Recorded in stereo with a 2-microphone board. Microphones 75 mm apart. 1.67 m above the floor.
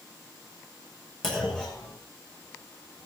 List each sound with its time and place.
1.2 s a clunk: 5° left (ahead or behind), 7 m